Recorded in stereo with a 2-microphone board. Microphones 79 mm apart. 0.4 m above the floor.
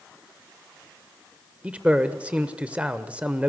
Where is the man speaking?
15° right (ahead or behind), 1.0 m.